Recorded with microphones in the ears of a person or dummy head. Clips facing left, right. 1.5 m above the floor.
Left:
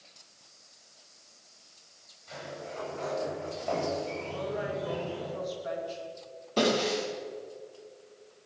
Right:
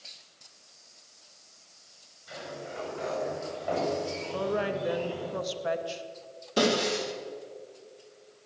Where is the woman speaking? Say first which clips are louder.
Right 5 dB; 80° right, 2.5 m.